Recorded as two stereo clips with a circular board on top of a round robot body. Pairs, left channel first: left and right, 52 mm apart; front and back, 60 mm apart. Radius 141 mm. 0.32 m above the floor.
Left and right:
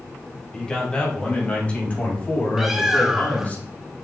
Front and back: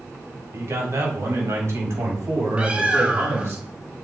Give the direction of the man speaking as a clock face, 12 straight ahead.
7 o'clock.